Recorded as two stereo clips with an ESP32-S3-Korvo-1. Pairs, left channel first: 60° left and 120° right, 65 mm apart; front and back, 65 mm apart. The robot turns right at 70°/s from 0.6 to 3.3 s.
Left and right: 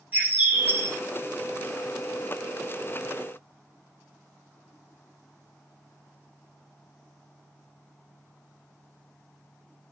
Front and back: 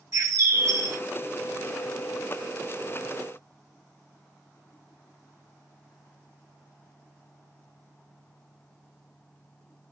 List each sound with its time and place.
0.1 s a bird: straight behind, 1.4 m; by 1.0 s 150° right, 1.4 m